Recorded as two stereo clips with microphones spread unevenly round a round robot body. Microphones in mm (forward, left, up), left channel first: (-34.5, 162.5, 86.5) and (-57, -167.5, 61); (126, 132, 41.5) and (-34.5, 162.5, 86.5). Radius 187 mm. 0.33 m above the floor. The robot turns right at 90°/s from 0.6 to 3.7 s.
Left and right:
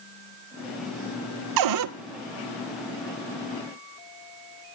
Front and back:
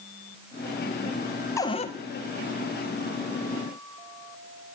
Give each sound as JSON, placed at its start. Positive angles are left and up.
{"t": 1.6, "sound": "a cupboard door", "azimuth_deg": -80, "distance_m": 0.6}